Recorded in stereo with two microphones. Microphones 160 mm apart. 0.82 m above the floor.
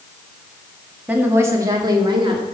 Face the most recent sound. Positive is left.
turn(degrees=-35)  # may be behind; listen again after turning